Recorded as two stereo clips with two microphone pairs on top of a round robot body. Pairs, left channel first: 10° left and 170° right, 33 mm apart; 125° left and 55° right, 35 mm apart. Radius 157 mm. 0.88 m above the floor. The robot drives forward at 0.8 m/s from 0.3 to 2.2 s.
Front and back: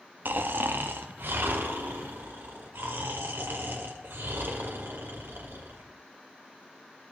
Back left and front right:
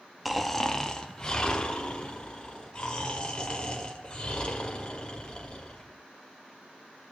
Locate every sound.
0.2 s snoring: 140° right, 0.6 m; by 5.9 s 170° right, 2.0 m